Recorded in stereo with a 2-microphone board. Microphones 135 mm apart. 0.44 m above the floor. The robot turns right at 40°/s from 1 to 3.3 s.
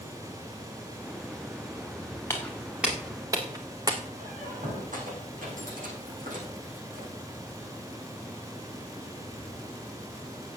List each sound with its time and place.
2.3 s footsteps: 15° left (ahead or behind), 4.5 m; by 4.1 s 30° right (ahead or behind), 1.7 m
4.2 s a squeak: 90° right, 7.5 m